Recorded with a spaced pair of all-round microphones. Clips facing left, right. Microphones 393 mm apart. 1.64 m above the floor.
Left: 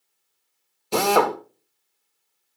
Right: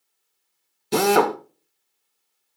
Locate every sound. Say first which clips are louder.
0.9 s a drill: right 2 dB; 30° right (ahead or behind), 1.1 m